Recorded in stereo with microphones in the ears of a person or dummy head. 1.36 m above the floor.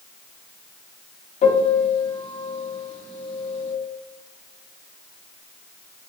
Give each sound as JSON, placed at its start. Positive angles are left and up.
{"t": 1.4, "sound": "a piano", "side_deg": 35, "distance_m": 0.9}